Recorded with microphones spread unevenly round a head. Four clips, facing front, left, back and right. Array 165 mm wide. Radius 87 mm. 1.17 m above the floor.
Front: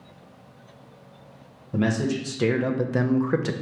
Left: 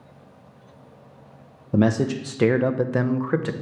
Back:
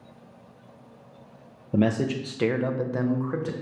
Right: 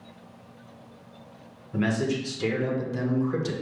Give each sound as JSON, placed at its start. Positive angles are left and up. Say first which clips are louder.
{"t": 1.7, "sound": "a man speaking", "louder": "left 6 dB, back 1 dB", "azimuth_deg": 120, "distance_m": 0.8}